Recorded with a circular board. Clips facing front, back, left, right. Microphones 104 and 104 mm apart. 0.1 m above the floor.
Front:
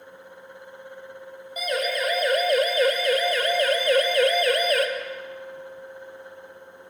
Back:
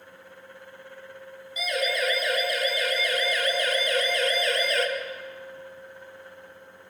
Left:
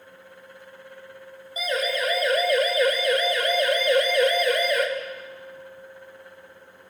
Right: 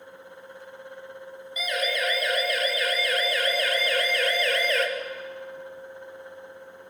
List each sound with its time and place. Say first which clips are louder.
1.6 s a siren: front 2 dB, left 3 dB; 35° left, 6 m; by 4.9 s 15° left, 3.5 m